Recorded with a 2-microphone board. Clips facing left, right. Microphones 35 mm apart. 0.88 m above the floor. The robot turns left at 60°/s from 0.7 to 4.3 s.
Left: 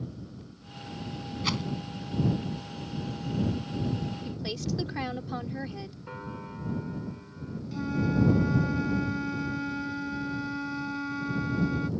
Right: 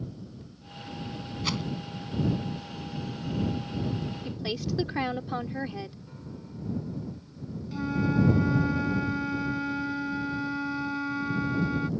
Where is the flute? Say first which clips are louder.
Right 1 dB; 10° right (ahead or behind).